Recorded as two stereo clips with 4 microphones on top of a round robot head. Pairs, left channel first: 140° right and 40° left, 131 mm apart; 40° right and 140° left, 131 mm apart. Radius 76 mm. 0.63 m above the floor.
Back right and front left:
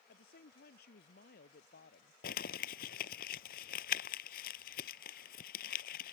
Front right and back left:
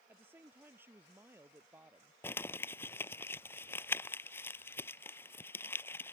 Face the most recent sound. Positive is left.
turn(degrees=-115)